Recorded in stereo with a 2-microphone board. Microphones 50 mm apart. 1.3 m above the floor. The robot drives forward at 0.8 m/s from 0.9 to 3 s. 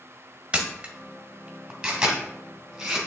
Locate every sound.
0.5 s a camera shutter: 15° right (ahead or behind), 1.6 m; by 3.0 s 10° right (ahead or behind), 3 m